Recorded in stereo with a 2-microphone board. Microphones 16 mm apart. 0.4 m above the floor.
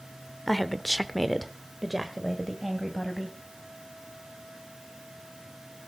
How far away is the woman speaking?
About 0.9 m.